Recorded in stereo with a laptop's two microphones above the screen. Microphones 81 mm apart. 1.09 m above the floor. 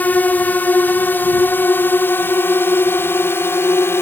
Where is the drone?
20° left (ahead or behind); by 4.0 s 30° left (ahead or behind).